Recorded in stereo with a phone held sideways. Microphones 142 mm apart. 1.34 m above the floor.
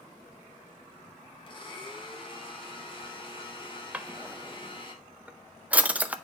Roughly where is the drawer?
Centre.